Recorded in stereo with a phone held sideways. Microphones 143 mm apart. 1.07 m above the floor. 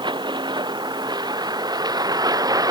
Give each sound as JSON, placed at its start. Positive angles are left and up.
{"t": 0.0, "sound": "a vehicle", "side_deg": -30}